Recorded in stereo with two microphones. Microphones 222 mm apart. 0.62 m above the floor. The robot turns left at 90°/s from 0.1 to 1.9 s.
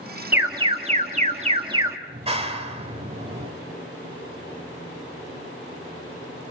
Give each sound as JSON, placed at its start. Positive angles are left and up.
{"t": 0.3, "sound": "an alarm", "azimuth_deg": -15, "distance_m": 1.4}
{"t": 2.1, "sound": "a clap", "side_deg": -25, "distance_m": 1.8}